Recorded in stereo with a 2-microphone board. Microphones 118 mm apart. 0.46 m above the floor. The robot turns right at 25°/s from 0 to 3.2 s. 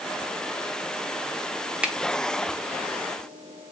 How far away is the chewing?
No chewing in this recording.